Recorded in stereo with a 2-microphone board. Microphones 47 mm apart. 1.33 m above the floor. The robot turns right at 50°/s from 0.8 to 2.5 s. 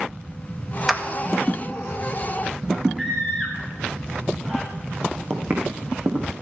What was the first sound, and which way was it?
A clap, 5° right (ahead or behind).